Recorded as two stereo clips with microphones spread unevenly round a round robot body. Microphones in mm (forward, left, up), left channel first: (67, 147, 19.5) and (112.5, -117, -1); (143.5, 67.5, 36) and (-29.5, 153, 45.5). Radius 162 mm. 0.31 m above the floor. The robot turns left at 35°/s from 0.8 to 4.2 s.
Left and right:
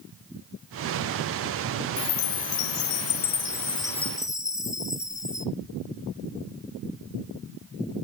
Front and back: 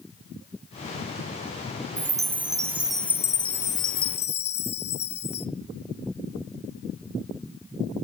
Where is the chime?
95° left, 0.5 m; by 5.5 s 20° left, 0.5 m.